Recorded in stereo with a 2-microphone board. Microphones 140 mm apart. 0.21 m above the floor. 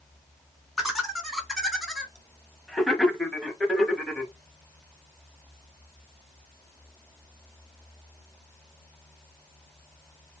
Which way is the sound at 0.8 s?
Centre (ahead or behind).